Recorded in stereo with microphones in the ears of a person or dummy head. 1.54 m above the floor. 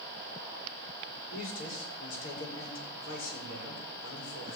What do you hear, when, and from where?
1.3 s a man speaking: 75° left (ahead or behind), 6 m